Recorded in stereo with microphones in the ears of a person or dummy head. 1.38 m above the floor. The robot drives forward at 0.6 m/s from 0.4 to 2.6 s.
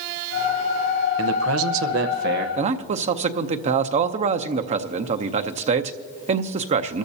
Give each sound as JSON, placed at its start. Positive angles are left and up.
{"t": 1.2, "sound": "a man speaking", "side_deg": -80, "distance_m": 0.8}
{"t": 2.6, "sound": "a man speaking", "side_deg": -40, "distance_m": 0.6}